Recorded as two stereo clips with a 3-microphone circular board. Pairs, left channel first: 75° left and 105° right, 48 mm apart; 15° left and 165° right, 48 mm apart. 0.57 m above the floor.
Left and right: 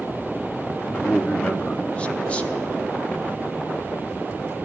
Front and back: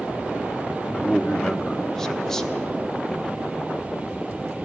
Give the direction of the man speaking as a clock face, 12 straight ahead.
9 o'clock.